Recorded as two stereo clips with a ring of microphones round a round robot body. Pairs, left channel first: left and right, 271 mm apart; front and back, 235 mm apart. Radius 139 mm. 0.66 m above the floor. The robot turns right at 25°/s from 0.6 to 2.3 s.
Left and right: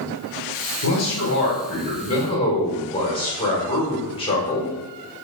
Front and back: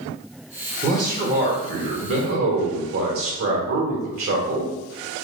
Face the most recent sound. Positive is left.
turn(degrees=160)